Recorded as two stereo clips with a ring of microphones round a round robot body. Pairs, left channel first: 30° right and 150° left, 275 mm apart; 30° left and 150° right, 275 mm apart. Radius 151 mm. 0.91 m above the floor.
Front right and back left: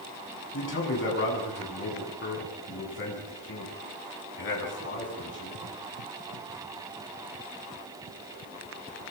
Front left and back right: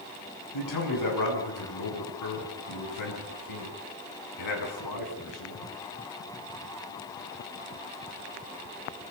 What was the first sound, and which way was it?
A man speaking, 20° left.